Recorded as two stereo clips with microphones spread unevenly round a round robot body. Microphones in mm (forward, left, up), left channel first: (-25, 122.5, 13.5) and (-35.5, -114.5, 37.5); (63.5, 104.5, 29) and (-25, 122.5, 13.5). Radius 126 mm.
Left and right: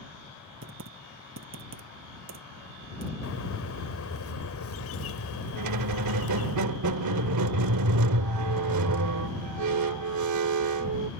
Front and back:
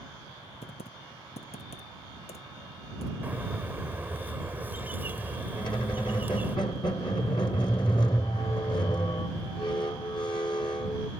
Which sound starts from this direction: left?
A bird, at 3.2 s.